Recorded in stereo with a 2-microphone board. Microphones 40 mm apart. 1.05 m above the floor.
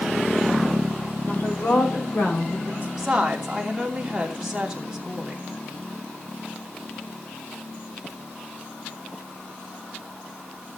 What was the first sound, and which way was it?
A woman speaking, 40° left (ahead or behind).